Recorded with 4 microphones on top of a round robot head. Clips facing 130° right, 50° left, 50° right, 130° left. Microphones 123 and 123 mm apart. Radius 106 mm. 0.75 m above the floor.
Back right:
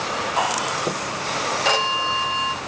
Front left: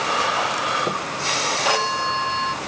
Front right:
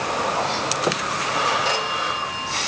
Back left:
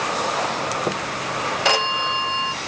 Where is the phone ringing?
130° left, 0.8 m.